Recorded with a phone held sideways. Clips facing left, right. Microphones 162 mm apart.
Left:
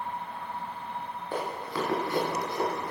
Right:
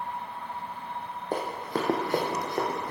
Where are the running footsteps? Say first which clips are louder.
Right 3 dB; 40° right (ahead or behind), 1.6 m; by 2.9 s 50° right (ahead or behind), 2.5 m.